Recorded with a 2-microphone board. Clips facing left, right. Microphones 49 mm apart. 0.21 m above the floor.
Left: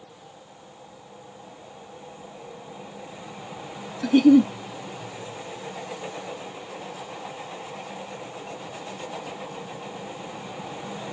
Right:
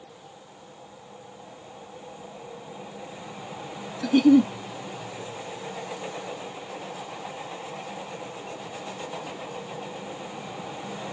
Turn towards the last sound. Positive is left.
turn(degrees=5)  # may be behind; listen again after turning